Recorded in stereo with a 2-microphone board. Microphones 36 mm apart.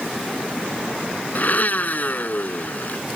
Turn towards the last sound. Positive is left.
turn(degrees=50)  # may be behind; listen again after turning